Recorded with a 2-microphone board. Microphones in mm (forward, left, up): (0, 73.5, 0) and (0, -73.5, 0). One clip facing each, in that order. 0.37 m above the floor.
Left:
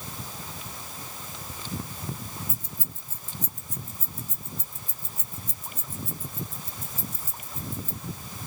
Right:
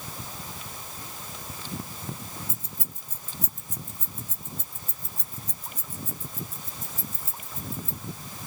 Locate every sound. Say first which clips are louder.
2.5 s keys jangling: left 1 dB; 30° right (ahead or behind), 1.2 m; by 8.0 s 40° left (ahead or behind), 3 m